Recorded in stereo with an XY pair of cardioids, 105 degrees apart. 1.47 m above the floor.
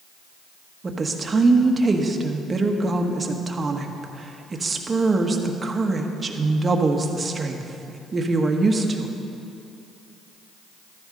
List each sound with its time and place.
0.8 s a woman speaking: 30° right, 1.5 m